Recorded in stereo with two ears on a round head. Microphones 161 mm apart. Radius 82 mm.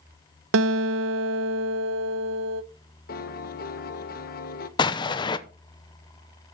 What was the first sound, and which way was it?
A guitar, 85° right.